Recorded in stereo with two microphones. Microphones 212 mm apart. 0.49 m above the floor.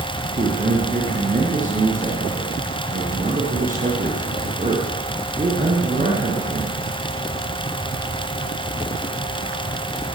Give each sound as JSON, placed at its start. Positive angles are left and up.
{"t": 0.3, "sound": "a man speaking", "side_deg": -35, "distance_m": 6.5}